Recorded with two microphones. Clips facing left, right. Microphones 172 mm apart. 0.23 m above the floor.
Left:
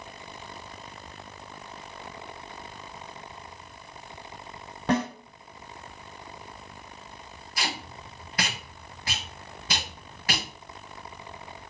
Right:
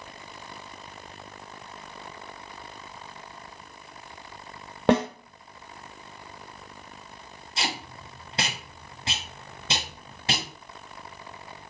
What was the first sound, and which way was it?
A snare drum, 85° right.